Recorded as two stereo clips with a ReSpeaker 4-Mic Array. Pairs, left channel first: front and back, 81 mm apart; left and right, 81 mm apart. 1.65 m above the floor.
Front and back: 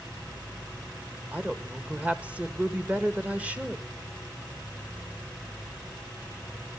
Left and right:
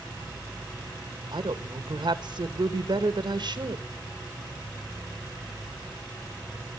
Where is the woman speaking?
105° right, 1.7 m.